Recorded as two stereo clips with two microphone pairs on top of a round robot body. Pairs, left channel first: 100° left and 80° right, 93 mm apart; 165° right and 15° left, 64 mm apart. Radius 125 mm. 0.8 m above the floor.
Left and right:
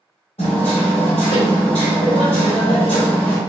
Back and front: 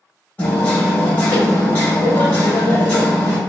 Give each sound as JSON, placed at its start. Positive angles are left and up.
{"t": 0.4, "sound": "hammering", "azimuth_deg": 120, "distance_m": 0.8}